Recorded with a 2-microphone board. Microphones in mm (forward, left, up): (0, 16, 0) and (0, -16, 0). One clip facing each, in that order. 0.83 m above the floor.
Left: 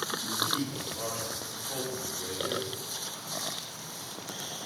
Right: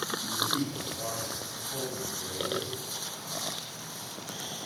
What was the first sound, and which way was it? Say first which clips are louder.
A man speaking: right 1 dB; 30° left (ahead or behind).